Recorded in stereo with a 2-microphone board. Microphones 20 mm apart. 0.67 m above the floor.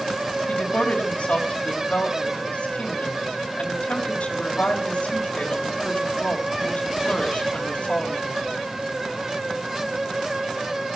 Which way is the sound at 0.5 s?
60° left (ahead or behind).